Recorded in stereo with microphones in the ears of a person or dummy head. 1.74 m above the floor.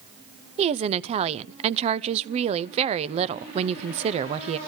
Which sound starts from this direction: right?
A woman speaking, at 0.6 s.